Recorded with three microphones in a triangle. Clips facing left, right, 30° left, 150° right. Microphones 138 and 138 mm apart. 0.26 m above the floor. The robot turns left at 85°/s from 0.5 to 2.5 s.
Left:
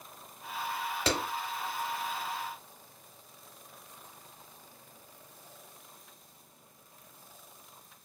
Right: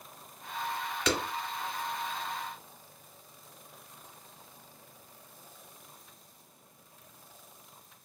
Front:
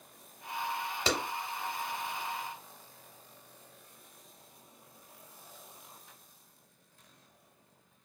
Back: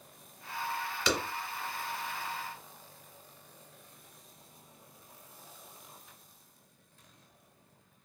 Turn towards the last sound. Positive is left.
turn(degrees=-70)